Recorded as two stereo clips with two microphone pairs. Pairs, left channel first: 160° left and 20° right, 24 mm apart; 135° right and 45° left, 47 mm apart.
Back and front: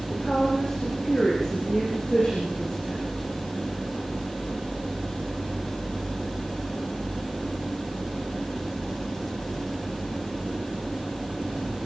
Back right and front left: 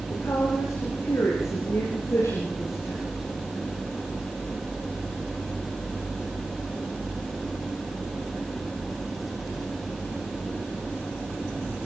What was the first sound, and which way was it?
A woman speaking, 145° right.